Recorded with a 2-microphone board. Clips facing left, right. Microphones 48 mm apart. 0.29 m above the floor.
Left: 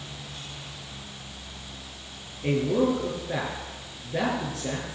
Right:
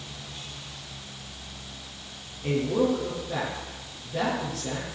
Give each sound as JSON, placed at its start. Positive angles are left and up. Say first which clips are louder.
{"t": 2.4, "sound": "a man speaking", "louder": "left 1 dB", "side_deg": 25, "distance_m": 7.5}